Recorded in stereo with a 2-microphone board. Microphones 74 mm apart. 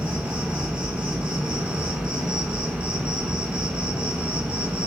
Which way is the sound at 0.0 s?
15° right (ahead or behind).